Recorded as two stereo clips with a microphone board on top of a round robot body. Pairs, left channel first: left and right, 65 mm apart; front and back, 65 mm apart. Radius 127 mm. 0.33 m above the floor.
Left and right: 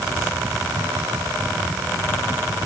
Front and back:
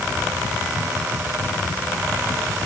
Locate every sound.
Only background noise.